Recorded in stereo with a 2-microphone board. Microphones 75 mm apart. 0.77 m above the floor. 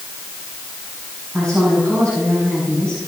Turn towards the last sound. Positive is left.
turn(degrees=20)  # may be behind; listen again after turning